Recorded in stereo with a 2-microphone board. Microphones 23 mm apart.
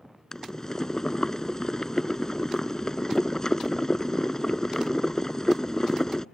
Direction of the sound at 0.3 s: 30° left (ahead or behind).